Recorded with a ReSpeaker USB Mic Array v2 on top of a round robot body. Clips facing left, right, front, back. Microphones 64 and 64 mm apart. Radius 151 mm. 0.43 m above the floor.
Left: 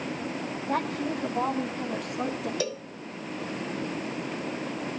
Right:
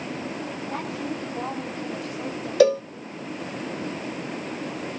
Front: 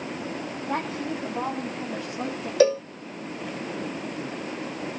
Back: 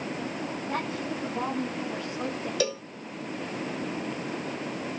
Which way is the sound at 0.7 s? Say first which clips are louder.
Left 4 dB, front 4 dB; 55° left.